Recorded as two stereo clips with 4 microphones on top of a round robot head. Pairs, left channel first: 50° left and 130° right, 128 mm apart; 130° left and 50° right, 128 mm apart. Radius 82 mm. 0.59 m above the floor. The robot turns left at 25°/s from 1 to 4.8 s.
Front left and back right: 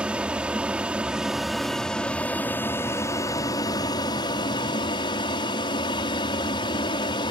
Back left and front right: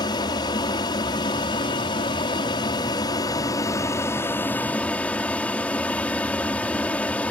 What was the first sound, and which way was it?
An aircraft, 155° left.